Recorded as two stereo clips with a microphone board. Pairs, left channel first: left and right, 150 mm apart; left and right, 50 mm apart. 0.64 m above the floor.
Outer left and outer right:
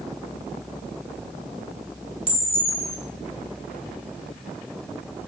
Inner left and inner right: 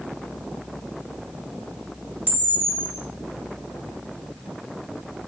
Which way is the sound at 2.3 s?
40° right (ahead or behind).